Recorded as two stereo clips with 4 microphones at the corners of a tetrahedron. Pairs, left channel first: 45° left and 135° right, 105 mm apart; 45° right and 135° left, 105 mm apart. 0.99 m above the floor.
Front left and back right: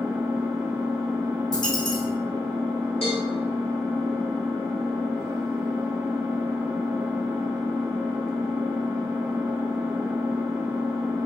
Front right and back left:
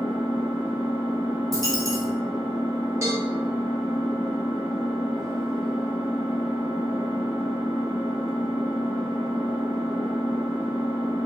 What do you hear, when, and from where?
0.0 s an engine running: 45° right, 1.0 m
1.5 s a dropped coin: 85° left, 1.7 m
3.0 s a cowbell: 75° left, 1.3 m